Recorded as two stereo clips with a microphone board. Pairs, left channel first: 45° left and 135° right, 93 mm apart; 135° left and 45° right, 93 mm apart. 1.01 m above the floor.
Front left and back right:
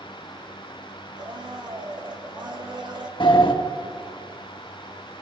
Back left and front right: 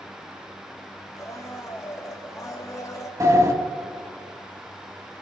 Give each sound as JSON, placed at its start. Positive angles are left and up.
{"t": 1.2, "sound": "a blender", "azimuth_deg": -175, "distance_m": 1.9}
{"t": 3.2, "sound": "a sliding door", "azimuth_deg": 10, "distance_m": 1.8}